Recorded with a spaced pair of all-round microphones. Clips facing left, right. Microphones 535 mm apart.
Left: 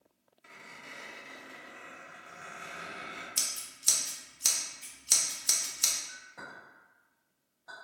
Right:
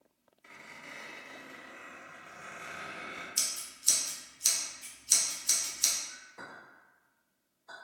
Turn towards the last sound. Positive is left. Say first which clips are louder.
# even
turn(degrees=90)